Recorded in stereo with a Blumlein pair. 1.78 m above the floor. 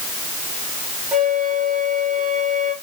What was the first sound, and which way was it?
A flute, 20° right.